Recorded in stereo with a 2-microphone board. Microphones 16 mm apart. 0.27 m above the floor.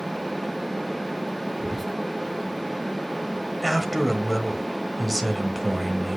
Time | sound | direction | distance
1.6 | whispering | centre (ahead or behind) | 4.5 m
3.6 | a man speaking | centre (ahead or behind) | 1.6 m